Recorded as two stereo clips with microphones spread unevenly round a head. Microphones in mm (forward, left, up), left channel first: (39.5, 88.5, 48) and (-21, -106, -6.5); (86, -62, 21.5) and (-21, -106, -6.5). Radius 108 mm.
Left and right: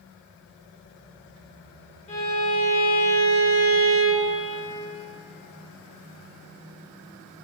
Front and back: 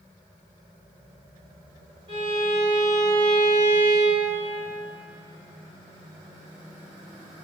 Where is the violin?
130° left, 1.7 m.